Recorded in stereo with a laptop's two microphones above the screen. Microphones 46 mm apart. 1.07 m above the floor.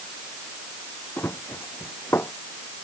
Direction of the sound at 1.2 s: 60° left (ahead or behind).